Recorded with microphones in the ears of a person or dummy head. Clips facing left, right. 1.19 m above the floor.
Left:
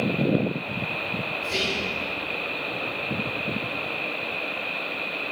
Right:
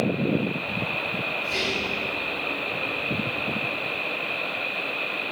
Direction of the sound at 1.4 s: 40° left (ahead or behind).